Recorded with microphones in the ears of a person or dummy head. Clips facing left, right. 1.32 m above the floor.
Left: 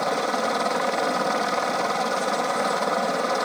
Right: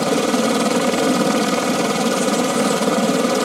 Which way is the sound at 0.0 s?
40° right (ahead or behind).